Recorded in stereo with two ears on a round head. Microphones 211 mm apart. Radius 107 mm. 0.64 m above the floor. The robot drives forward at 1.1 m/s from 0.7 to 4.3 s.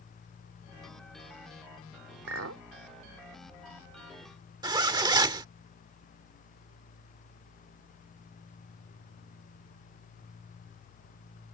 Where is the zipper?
20° right (ahead or behind).